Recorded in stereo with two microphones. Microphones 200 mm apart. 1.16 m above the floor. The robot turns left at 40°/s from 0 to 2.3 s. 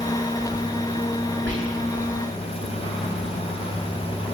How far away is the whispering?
About 1.3 m.